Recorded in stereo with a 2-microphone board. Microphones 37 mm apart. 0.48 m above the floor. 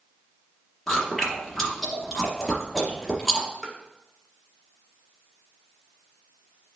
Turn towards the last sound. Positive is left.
turn(degrees=-10)  # may be behind; listen again after turning